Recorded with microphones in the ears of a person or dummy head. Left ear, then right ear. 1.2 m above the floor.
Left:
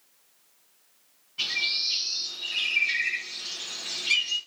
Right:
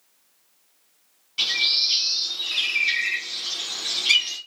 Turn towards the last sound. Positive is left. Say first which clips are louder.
# right 6 dB
turn(degrees=-80)